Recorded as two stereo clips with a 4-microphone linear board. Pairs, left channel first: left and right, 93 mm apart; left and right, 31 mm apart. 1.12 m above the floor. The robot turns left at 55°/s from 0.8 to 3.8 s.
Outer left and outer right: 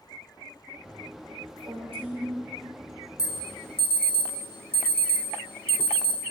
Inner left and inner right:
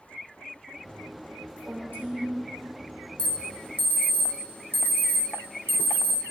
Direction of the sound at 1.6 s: 85° right.